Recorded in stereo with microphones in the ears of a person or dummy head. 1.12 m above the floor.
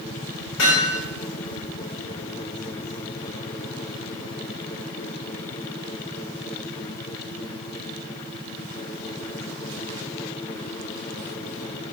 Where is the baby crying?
I don't hear a baby crying.